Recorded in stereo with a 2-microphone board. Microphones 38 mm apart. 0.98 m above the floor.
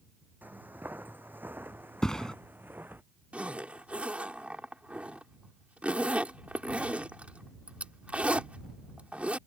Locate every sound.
0.4 s footsteps: 55° right (ahead or behind); by 3.0 s 60° right (ahead or behind)
2.0 s a thud: 15° left (ahead or behind)
3.3 s a zipper: 40° right (ahead or behind)